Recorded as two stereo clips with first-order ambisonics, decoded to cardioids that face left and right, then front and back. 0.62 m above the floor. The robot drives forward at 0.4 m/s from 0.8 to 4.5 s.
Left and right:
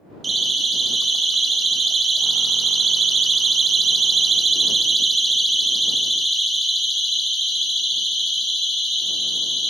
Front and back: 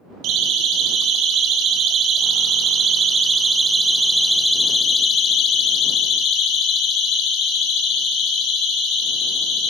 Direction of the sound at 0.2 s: 160° right.